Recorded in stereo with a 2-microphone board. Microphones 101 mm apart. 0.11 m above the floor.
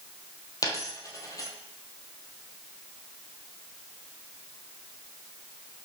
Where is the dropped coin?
35° left (ahead or behind), 1.8 m.